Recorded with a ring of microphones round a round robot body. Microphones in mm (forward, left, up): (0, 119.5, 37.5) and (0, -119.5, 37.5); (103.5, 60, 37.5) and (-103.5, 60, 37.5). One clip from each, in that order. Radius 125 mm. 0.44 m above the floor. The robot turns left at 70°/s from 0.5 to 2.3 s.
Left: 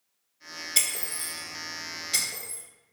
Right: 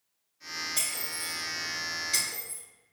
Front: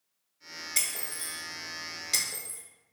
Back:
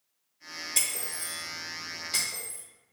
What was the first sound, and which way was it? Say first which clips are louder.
Breaking glass: left 4 dB, back 1 dB; 90° left.